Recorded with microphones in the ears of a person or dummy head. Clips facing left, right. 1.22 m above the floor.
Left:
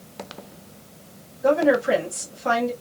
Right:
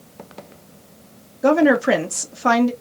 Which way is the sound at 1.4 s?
90° right.